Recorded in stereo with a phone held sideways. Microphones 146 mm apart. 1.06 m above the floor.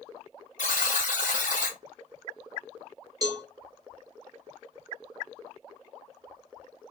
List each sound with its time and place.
0.6 s a buzzer: 75° left (ahead or behind), 1.7 m
3.2 s a cowbell: 25° right (ahead or behind), 0.9 m